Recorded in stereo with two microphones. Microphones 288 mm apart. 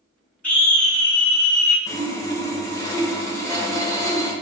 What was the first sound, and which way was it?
A scream, 25° left (ahead or behind).